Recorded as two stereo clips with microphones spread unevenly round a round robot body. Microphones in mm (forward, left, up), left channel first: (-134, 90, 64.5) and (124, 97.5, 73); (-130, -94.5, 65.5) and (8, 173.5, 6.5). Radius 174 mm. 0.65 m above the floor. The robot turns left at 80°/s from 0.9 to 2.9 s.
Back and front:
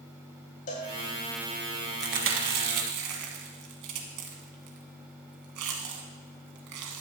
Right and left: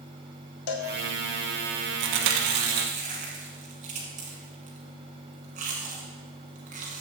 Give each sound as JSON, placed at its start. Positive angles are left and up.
{"t": 0.7, "sound": "a cowbell", "azimuth_deg": -115, "distance_m": 1.3}
{"t": 2.0, "sound": "chewing", "azimuth_deg": 60, "distance_m": 1.1}